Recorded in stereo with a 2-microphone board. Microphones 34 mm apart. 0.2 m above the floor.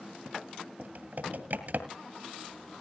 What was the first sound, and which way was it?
Typing on a keyboard, 65° right (ahead or behind).